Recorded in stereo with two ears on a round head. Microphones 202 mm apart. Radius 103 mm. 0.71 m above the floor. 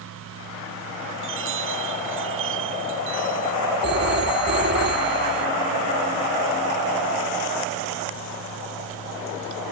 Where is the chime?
65° right (ahead or behind).